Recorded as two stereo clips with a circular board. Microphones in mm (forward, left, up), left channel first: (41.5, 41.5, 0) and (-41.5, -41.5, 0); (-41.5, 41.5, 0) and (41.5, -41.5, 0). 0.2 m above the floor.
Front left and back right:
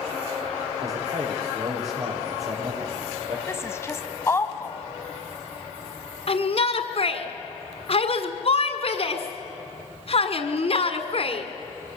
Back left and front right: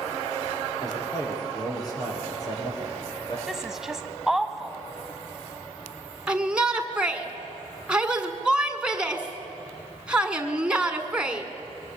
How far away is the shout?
About 1.7 m.